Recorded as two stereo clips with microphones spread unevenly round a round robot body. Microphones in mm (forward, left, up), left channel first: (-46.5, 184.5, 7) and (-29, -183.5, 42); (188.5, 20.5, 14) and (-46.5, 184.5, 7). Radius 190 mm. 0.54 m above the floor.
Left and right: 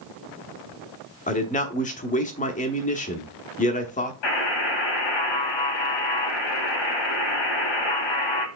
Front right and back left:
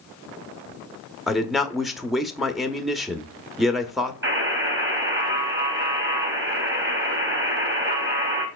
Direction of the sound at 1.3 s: 60° left.